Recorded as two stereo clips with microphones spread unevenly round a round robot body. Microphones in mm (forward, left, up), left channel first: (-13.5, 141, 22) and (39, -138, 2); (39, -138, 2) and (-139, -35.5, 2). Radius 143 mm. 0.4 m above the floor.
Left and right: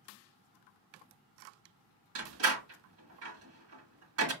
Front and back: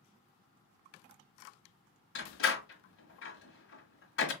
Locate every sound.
2.1 s a door slam: 45° right, 1.6 m